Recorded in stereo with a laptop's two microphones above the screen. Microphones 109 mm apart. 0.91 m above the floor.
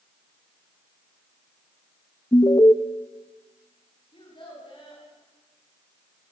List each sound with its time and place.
2.3 s an alarm: 35° left (ahead or behind), 1.1 m
4.1 s a child speaking: 45° left (ahead or behind), 7 m